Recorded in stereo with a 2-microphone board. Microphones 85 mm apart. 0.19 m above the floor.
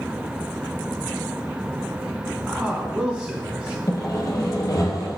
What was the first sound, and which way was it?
A man speaking, 10° right (ahead or behind).